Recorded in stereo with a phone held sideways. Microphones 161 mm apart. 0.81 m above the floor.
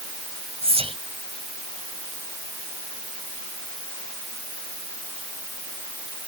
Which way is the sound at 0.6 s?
35° right (ahead or behind).